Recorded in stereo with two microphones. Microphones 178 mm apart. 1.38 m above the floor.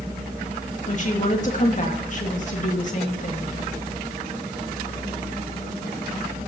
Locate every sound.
0.9 s a woman speaking: 50° left (ahead or behind), 2.5 m